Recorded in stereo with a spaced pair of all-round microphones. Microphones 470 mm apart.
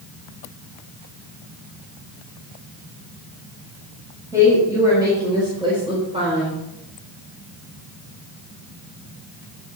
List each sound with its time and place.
4.3 s a woman speaking: 5° right (ahead or behind), 6 m; by 6.6 s 15° right (ahead or behind), 3.5 m